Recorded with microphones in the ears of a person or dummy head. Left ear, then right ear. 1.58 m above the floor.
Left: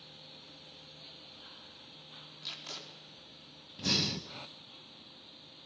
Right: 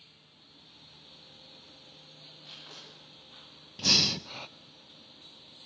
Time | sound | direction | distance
2.4 | tape being pulled | 75° left (ahead or behind) | 4 m
3.8 | breathing | 25° right (ahead or behind) | 0.7 m